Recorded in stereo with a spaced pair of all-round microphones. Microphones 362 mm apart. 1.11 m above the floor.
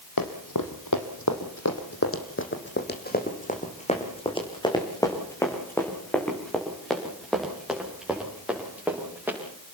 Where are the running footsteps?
65° left (ahead or behind), 2.5 m; by 9.4 s 5° right (ahead or behind), 8 m.